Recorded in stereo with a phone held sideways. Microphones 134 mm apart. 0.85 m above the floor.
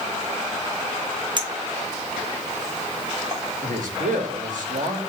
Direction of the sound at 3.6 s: 75° right (ahead or behind).